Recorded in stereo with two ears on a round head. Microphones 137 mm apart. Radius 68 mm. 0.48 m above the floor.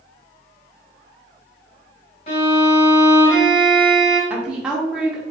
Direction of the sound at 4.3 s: 5° right (ahead or behind).